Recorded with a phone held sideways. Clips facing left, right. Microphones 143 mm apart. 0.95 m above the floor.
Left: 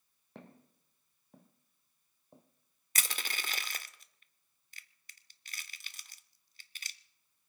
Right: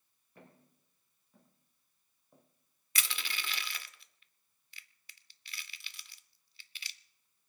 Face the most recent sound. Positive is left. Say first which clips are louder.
# left 1 dB
turn(degrees=40)  # may be behind; listen again after turning